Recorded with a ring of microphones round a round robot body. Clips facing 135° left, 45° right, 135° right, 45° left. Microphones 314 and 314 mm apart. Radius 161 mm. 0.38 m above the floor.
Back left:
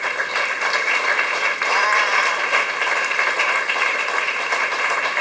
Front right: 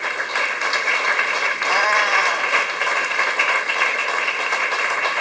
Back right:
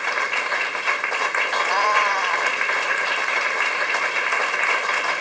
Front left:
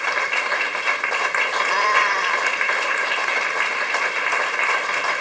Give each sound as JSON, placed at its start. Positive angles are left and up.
{"t": 1.6, "sound": "a cat meowing", "azimuth_deg": -25}